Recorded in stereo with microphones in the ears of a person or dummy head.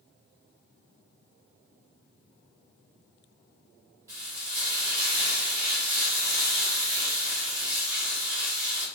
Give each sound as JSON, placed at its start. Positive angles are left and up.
{"t": 4.1, "sound": "frying", "side_deg": -15, "distance_m": 1.2}